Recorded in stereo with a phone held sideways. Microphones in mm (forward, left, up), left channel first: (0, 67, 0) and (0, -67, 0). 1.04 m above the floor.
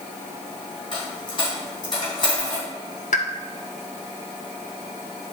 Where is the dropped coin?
35° left (ahead or behind), 3.5 m.